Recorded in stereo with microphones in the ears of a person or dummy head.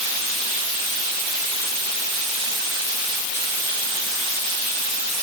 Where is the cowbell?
No cowbell in this recording.